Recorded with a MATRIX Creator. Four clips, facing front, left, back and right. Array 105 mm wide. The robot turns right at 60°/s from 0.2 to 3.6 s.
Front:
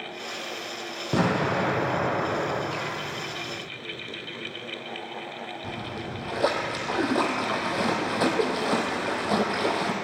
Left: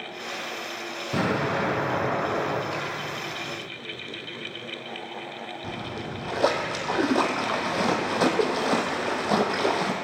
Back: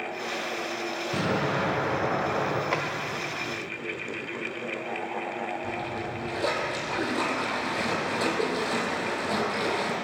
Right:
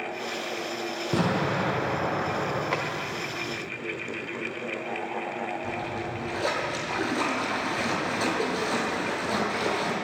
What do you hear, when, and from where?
1.1 s an explosion: 30° right, 4 m; by 2.6 s 60° left, 4 m
2.7 s a drawer: 140° right, 1.4 m; by 2.9 s 135° right, 1.4 m
5.6 s a splash: 65° left, 1.7 m